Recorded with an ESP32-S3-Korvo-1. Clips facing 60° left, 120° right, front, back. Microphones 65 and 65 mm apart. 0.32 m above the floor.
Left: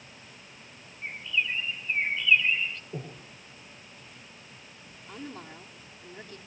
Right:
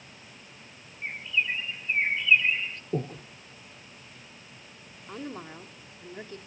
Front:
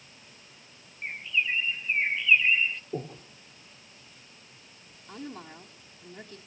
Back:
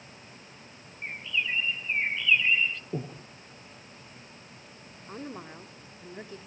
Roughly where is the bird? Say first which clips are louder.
Right 1 dB, front 2 dB; right.